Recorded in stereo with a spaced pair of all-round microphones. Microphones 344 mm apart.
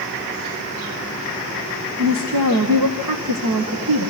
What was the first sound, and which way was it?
A woman speaking, 80° right.